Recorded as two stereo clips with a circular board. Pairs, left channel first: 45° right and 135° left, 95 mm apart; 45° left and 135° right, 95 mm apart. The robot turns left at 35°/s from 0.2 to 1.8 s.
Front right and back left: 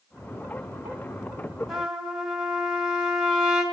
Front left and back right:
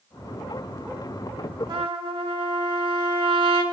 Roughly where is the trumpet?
Behind right.